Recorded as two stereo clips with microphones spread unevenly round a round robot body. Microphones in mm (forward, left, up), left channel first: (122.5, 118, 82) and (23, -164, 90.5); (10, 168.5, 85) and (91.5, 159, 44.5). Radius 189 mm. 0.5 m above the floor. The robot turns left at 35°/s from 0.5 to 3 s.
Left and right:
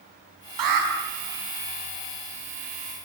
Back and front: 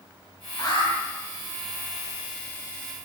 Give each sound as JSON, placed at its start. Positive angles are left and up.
{"t": 0.6, "sound": "an alarm", "azimuth_deg": -115, "distance_m": 6.5}